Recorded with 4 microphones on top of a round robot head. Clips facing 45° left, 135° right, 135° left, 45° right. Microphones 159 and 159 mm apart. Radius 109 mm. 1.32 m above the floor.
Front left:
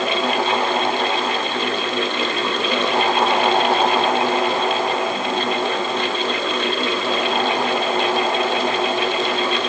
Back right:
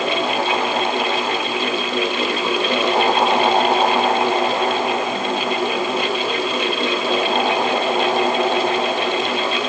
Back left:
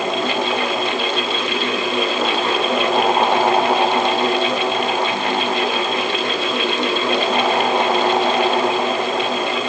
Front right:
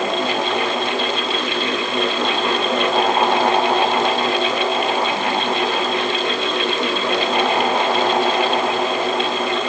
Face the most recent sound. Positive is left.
No sound to turn to.